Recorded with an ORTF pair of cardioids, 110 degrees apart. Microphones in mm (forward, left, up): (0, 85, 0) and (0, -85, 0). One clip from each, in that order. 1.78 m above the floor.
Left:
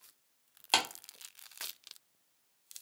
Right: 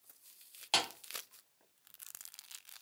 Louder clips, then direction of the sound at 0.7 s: Left 3 dB; 30° left.